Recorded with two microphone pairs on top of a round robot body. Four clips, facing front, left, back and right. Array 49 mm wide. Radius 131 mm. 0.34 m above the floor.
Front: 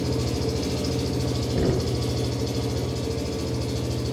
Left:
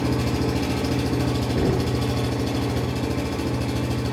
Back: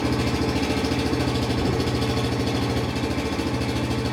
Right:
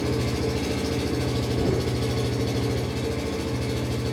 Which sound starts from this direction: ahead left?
Knocking, at 1.6 s.